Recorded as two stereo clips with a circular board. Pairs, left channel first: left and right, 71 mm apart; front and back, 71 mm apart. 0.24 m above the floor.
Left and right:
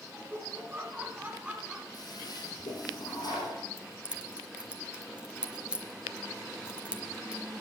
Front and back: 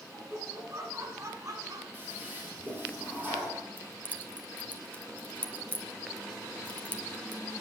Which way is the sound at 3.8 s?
35° right.